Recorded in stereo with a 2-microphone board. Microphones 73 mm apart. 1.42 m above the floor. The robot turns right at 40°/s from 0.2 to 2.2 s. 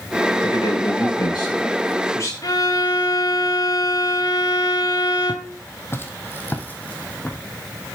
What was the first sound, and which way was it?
A man speaking, 65° left.